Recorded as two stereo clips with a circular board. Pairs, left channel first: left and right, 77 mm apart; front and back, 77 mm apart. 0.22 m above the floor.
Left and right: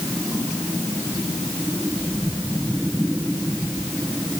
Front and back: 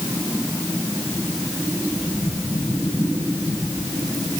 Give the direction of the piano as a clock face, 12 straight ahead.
No piano in this recording.